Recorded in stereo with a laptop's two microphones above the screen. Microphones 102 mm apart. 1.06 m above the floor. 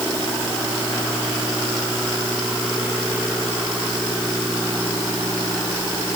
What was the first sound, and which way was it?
Only background noise.